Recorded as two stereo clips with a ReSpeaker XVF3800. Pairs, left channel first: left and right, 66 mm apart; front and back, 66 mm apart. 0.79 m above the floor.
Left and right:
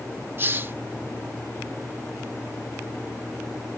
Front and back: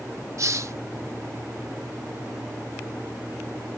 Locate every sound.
0.4 s a hiss: 140° right